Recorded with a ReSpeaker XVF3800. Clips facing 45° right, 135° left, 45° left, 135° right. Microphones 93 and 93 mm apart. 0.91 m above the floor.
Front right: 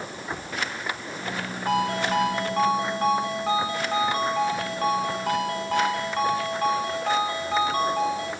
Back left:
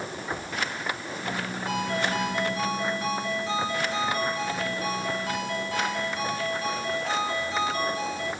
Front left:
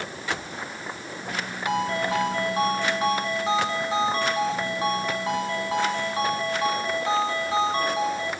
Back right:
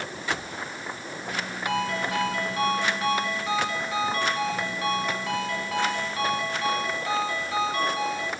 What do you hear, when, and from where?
1.7 s a ringtone: 15° right, 5 m